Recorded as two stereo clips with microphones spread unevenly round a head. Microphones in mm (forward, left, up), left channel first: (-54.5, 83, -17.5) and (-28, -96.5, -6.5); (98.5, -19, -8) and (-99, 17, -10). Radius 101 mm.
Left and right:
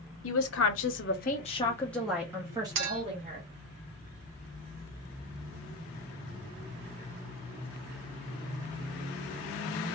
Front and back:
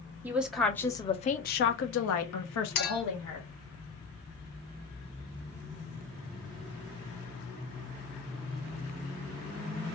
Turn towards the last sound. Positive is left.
turn(degrees=-55)